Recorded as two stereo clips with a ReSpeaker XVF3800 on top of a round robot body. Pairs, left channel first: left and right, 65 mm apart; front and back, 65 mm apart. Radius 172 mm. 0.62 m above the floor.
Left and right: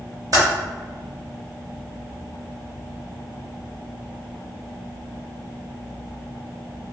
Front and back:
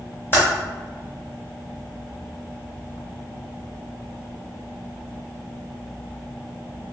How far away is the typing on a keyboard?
About 0.6 m.